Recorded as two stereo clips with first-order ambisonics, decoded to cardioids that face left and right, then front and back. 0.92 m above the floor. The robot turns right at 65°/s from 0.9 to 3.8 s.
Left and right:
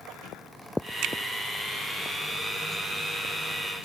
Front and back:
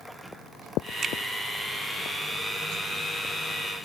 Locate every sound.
1.0 s a finger snap: 115° right; by 1.1 s 105° right